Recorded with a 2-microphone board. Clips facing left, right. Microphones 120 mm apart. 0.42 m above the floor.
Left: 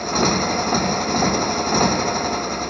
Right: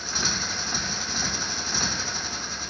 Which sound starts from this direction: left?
A motorcycle, at 0.0 s.